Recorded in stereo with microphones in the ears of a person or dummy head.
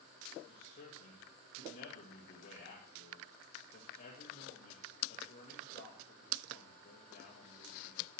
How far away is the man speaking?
About 2 m.